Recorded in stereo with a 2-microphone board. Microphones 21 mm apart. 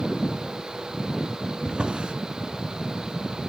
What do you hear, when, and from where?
1.6 s a drawer: 60° right (ahead or behind), 1.2 m